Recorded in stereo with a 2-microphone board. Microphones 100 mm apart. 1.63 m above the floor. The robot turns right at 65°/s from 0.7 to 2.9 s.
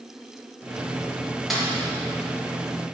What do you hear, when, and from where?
1.5 s a snare drum: centre (ahead or behind), 2 m; by 1.7 s 10° left (ahead or behind), 2 m